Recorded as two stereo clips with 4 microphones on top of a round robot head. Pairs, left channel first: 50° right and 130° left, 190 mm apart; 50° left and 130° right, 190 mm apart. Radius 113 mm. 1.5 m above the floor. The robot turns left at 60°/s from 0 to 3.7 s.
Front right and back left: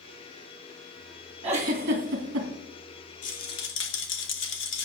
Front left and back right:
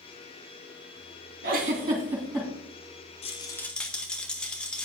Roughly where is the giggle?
Behind.